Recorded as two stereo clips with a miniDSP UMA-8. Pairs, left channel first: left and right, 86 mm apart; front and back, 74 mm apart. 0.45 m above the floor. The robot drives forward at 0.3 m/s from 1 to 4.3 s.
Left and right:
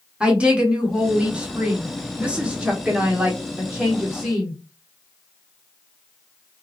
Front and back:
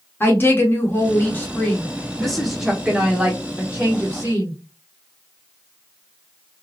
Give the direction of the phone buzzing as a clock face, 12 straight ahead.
I don't hear a phone buzzing.